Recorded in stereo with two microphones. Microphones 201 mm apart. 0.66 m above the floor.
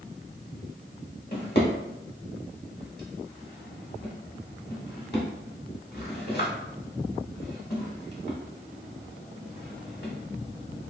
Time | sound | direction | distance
1.3 | a drawer | 55° left (ahead or behind) | 1.0 m